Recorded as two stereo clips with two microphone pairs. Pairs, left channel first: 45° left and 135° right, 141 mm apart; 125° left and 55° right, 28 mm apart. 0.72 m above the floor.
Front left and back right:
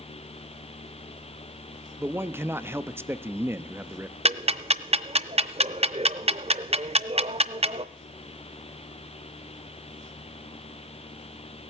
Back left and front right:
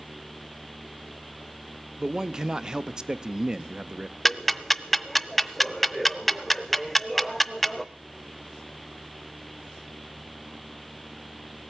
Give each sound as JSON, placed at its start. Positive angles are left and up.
{"t": 2.0, "sound": "a man speaking", "azimuth_deg": -90, "distance_m": 0.5}
{"t": 4.2, "sound": "ticking", "azimuth_deg": -150, "distance_m": 0.5}